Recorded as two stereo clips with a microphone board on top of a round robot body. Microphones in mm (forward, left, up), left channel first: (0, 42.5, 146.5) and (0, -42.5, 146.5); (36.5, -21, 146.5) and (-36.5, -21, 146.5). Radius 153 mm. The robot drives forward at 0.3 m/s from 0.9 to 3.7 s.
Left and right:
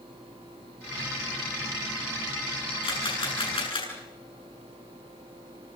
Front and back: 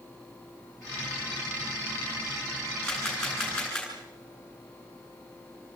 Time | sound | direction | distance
2.8 | a camera shutter | 85° left | 8.5 m